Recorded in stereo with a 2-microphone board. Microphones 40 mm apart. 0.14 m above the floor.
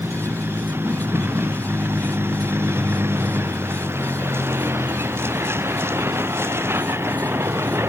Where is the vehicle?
70° right (ahead or behind); by 7.9 s 85° right.